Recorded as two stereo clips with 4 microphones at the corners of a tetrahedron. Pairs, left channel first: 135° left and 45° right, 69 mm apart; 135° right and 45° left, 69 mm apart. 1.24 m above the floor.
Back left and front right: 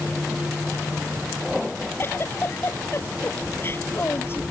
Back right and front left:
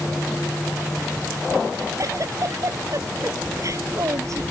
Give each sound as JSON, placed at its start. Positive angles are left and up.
{"t": 2.0, "sound": "a giggle", "azimuth_deg": 80}